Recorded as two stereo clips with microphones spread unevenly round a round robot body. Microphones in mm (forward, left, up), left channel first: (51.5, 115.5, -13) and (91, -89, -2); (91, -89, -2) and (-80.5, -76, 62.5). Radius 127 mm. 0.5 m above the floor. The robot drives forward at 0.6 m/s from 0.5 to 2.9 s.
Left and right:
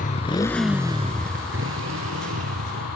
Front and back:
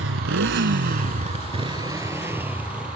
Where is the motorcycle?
165° left; by 3.0 s 100° right.